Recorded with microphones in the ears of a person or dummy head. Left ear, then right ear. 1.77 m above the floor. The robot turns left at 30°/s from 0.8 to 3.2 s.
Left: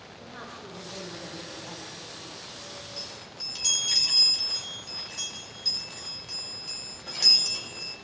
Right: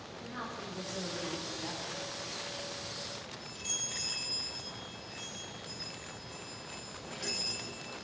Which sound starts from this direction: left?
A chime, at 3.0 s.